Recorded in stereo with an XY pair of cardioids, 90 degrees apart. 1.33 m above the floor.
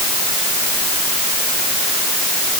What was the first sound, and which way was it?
Only background noise.